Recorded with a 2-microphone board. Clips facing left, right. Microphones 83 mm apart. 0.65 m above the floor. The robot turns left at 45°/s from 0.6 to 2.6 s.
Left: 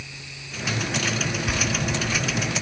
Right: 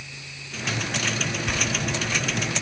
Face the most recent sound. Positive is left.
turn(degrees=125)